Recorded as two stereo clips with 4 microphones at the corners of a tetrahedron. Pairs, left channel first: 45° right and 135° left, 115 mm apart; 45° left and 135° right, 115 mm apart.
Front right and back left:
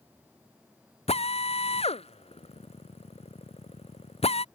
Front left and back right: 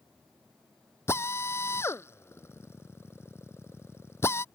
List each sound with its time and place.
1.1 s a drill: 20° right